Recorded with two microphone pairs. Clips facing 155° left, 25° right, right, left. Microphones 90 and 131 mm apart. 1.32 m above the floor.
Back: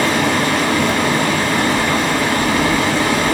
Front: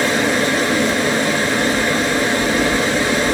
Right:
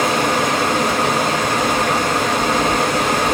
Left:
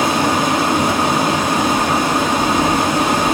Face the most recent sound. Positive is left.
turn(degrees=165)